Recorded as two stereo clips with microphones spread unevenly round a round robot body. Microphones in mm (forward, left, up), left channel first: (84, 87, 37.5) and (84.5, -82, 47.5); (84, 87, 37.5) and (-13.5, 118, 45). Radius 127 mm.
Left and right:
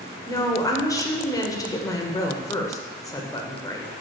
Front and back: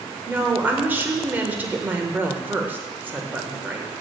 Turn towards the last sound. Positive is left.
turn(degrees=105)